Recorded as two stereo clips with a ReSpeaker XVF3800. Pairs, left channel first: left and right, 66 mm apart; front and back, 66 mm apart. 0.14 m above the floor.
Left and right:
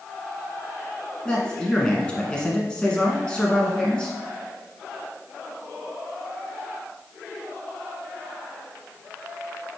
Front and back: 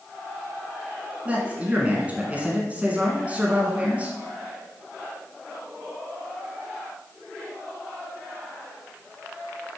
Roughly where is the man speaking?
Behind left.